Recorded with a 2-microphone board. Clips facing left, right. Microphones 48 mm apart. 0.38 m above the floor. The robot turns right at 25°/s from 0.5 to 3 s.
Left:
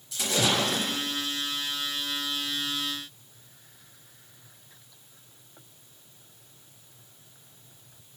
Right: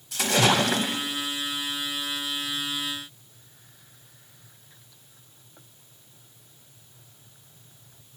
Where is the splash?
75° right (ahead or behind), 0.6 m; by 1.1 s 60° right (ahead or behind), 0.6 m.